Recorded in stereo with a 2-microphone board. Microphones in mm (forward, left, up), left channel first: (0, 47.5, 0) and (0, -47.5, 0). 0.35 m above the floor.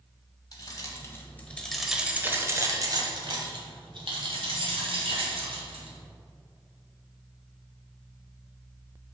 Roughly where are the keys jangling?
Left.